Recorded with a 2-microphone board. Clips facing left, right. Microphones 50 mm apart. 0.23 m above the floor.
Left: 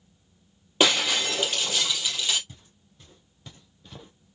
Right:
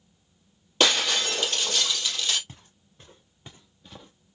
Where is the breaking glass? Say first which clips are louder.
Left 1 dB; 15° left (ahead or behind), 3 m.